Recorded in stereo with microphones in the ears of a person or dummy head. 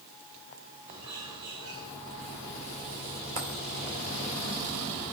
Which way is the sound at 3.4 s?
30° right (ahead or behind).